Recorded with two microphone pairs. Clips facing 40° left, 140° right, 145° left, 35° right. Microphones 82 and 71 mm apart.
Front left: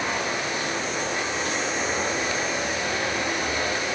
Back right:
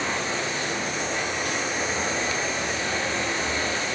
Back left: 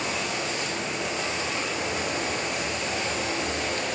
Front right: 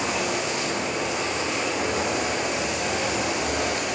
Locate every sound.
0.0 s running water: 40° right, 8 m